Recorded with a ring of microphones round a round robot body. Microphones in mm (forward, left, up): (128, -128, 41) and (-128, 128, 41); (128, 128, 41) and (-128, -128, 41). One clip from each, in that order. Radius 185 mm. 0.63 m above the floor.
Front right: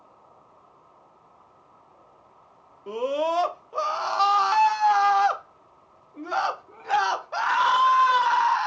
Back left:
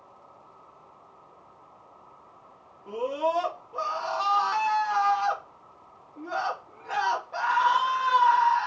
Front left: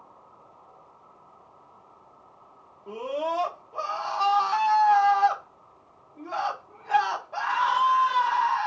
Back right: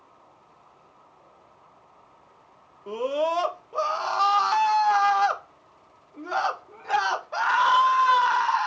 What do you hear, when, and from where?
2.9 s a scream: 90° right, 0.8 m